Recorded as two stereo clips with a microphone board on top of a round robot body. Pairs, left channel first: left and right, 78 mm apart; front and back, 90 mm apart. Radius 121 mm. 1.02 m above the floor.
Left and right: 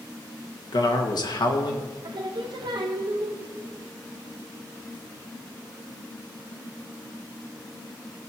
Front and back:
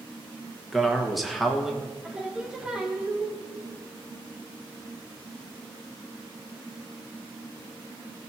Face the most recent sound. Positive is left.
turn(degrees=-100)